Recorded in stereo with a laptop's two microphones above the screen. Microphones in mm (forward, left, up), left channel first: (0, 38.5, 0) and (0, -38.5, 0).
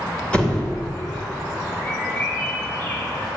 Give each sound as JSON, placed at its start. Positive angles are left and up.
{"t": 0.3, "sound": "a door slam", "side_deg": 15, "distance_m": 2.5}
{"t": 1.8, "sound": "a bird", "side_deg": 20, "distance_m": 6.0}